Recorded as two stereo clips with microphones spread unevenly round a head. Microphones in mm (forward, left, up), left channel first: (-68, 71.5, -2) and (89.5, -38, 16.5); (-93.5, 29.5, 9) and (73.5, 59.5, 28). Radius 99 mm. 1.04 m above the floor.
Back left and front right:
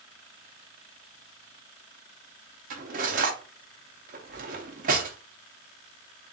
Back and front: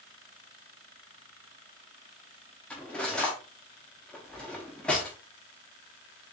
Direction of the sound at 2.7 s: 80° right.